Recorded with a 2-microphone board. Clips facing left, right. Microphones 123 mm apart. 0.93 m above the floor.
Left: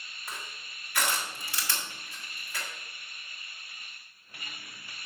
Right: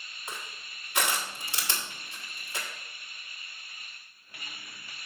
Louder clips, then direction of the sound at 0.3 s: Right 1 dB; 25° right (ahead or behind).